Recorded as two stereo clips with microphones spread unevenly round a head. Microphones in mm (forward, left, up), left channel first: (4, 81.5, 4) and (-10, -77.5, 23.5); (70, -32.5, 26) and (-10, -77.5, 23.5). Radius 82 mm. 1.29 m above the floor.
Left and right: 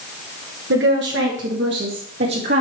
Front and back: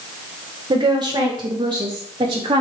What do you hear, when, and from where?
0.7 s a woman speaking: 110° right, 1.6 m; by 2.6 s 115° right, 3 m